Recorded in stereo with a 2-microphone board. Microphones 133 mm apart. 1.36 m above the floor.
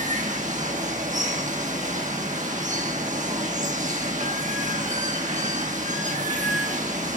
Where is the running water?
65° right (ahead or behind), 1.6 m.